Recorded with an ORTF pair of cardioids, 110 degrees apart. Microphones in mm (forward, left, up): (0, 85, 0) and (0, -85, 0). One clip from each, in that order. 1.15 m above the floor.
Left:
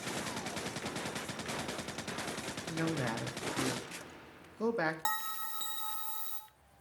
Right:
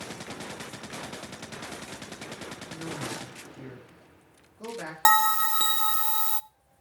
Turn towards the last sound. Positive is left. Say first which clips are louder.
# right 16 dB
turn(degrees=-60)